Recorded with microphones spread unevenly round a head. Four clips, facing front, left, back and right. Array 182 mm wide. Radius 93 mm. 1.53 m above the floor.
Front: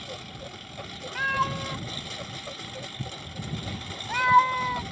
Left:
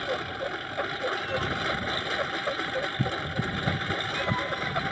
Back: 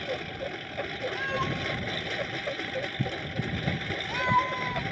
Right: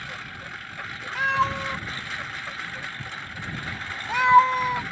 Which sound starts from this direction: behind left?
A lawn mower, at 0.0 s.